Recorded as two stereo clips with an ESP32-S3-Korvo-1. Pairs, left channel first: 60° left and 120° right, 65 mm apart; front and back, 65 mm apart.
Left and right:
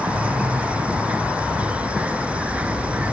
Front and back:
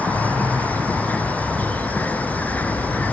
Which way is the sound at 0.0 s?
60° right.